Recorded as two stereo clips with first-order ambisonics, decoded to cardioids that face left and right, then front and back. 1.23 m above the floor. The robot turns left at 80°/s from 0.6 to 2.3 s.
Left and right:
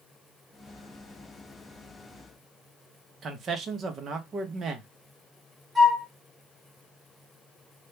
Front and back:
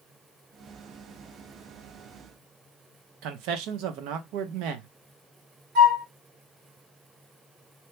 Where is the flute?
170° right, 1.2 m.